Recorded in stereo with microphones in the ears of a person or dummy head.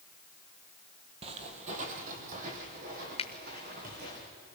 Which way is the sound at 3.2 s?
30° left (ahead or behind).